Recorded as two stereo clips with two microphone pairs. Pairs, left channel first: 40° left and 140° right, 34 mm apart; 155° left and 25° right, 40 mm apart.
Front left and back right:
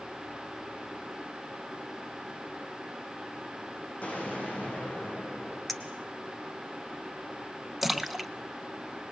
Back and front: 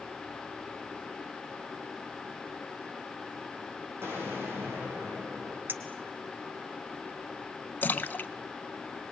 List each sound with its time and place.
4.0 s an explosion: 10° right, 8.5 m
5.7 s a clink: 50° right, 1.8 m
7.8 s a splash: 130° left, 0.9 m